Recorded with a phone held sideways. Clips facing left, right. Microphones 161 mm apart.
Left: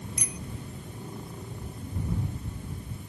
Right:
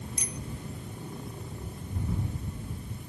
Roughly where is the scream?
I don't hear a scream.